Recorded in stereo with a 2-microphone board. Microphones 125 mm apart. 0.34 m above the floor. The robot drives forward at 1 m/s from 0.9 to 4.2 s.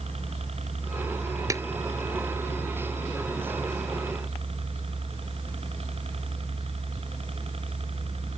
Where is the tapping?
25° right (ahead or behind).